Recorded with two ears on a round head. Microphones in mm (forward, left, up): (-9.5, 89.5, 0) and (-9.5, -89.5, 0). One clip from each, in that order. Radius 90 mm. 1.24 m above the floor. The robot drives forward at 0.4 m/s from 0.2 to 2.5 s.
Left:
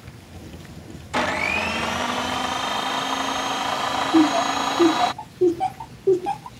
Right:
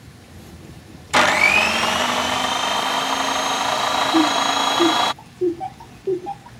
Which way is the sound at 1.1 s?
45° right (ahead or behind).